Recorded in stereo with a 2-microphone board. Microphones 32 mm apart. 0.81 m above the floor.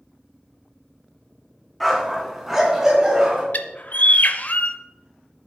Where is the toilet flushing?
I don't hear a toilet flushing.